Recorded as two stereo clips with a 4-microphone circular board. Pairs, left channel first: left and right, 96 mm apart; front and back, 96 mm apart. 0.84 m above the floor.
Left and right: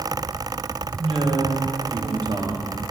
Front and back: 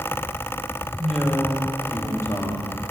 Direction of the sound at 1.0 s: 90° right.